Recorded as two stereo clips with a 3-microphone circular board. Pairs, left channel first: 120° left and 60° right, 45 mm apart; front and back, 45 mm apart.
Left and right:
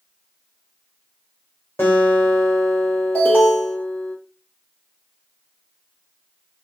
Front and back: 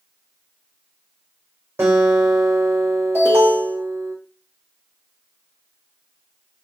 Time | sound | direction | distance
1.8 | a guitar | 160° left | 2.5 m
3.1 | an alarm | 175° left | 2.5 m